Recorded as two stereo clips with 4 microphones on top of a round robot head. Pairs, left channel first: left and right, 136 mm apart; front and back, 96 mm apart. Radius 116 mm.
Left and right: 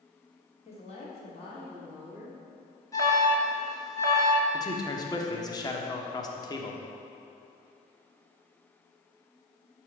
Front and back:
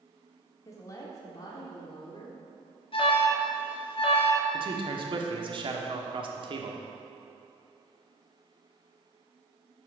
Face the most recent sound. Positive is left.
turn(degrees=150)